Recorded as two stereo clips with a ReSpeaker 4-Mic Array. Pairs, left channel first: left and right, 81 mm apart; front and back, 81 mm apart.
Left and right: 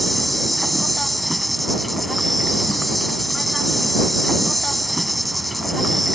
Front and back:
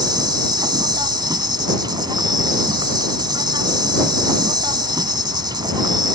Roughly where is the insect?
Behind.